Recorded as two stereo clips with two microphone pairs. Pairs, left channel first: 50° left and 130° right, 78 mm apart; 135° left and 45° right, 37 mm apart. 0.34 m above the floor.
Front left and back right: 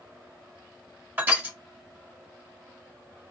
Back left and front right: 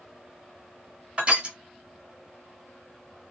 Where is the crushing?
80° right, 1.3 m.